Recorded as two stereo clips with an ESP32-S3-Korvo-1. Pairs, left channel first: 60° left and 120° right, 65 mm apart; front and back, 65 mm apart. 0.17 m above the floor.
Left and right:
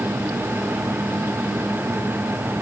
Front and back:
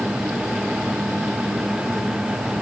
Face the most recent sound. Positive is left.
No sound to turn to.